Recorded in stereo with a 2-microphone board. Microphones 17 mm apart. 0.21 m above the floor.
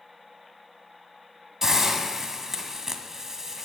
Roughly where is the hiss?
Right.